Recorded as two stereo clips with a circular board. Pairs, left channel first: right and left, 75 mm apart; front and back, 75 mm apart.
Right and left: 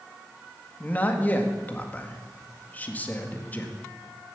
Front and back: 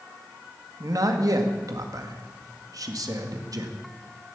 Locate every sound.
0.8 s a man speaking: 155° right, 1.8 m